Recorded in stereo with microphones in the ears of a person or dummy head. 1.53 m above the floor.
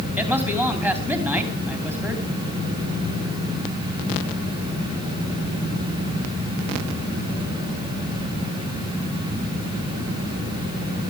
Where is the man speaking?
15° right (ahead or behind), 3 m.